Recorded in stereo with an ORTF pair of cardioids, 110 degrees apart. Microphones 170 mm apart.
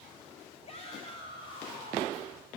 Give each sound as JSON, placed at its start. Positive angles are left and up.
{"t": 0.7, "sound": "a shout", "azimuth_deg": 40, "distance_m": 4.0}